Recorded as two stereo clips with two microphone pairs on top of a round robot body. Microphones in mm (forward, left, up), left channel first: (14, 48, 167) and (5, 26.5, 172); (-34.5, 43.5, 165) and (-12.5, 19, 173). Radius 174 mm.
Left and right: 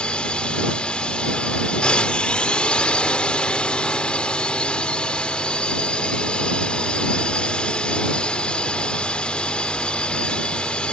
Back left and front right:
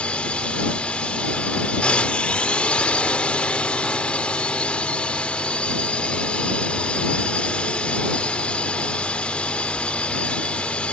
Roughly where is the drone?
Left.